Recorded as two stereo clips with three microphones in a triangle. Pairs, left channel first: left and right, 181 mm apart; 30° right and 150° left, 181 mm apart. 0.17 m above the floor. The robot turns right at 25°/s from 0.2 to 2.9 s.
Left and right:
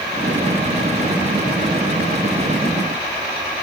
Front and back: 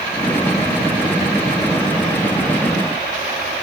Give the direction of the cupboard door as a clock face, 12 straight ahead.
I don't hear a cupboard door.